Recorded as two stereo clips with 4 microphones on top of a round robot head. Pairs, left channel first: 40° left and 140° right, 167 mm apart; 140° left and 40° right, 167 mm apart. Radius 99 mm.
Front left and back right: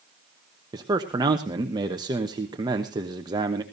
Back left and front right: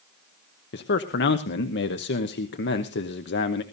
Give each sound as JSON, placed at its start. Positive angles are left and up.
{"t": 0.7, "sound": "a man speaking", "azimuth_deg": 150, "distance_m": 1.1}